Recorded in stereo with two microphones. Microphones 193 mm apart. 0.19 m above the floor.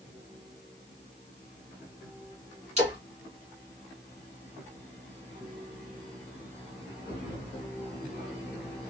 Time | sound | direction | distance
2.8 | a splash | 35° right (ahead or behind) | 2.5 m